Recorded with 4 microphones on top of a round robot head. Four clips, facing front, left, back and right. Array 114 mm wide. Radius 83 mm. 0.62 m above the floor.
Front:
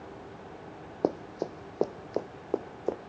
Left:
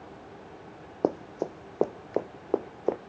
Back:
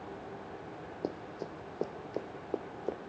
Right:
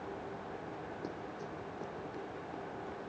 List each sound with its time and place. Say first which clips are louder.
1.0 s running footsteps: left 13 dB, front 9 dB; 60° left; by 3.0 s 75° left